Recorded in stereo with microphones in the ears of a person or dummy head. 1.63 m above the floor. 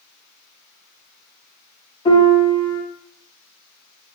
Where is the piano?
25° left (ahead or behind), 1.2 m.